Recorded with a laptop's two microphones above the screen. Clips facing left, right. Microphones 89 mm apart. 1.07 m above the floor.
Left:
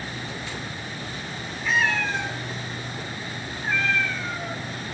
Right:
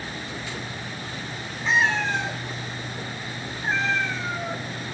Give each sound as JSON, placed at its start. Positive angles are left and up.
{"t": 1.6, "sound": "a cat meowing", "side_deg": -25, "distance_m": 3.5}